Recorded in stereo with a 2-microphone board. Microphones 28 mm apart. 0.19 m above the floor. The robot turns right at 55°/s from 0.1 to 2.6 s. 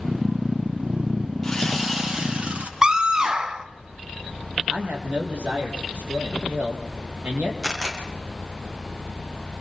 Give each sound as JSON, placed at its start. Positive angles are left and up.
{"t": 1.4, "sound": "sawing", "azimuth_deg": 165, "distance_m": 6.5}
{"t": 2.8, "sound": "a scream", "side_deg": -25, "distance_m": 1.6}
{"t": 4.7, "sound": "a man speaking", "side_deg": -50, "distance_m": 8.0}
{"t": 7.6, "sound": "a camera shutter", "side_deg": -25, "distance_m": 7.0}